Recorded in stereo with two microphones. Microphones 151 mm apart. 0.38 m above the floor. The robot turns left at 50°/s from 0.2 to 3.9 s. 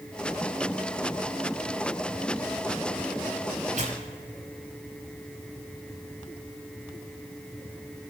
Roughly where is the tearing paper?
Right.